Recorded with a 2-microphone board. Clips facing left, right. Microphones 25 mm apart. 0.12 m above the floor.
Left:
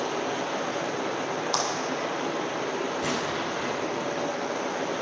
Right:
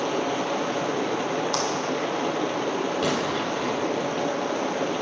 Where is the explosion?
65° right (ahead or behind), 4 m.